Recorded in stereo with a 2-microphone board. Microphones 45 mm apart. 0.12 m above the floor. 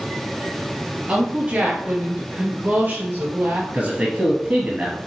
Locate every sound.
1.1 s a woman speaking: 35° right (ahead or behind), 2.5 m; by 3.6 s 60° right (ahead or behind), 3 m
3.7 s a man speaking: 35° right (ahead or behind), 1.6 m